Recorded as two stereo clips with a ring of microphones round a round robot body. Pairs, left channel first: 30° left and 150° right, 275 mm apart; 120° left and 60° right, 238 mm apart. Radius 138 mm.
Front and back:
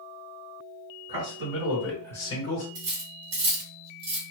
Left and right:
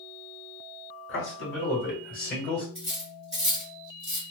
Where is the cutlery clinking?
150° right, 1.5 m.